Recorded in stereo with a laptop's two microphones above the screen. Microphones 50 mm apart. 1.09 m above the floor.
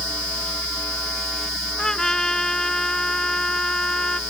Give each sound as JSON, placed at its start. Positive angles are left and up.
{"t": 1.8, "sound": "a trumpet", "side_deg": 10}